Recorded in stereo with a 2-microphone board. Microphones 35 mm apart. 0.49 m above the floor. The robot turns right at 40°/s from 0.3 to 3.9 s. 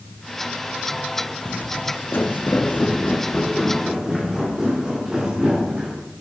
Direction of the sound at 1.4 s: 45° left (ahead or behind).